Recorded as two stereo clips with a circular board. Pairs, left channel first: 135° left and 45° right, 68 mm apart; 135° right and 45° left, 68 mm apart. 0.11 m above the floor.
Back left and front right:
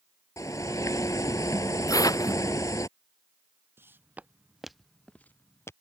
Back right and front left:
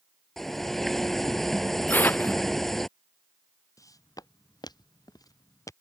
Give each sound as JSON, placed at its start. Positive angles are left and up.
{"t": 0.4, "sound": "a bird", "azimuth_deg": 140}
{"t": 1.9, "sound": "tearing paper", "azimuth_deg": 160}
{"t": 3.8, "sound": "footsteps", "azimuth_deg": -100}